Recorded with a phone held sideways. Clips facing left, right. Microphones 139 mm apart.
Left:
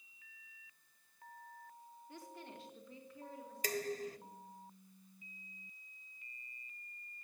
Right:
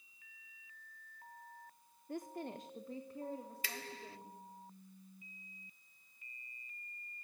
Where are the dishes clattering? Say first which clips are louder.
Left 9 dB; 45° left (ahead or behind), 0.6 m.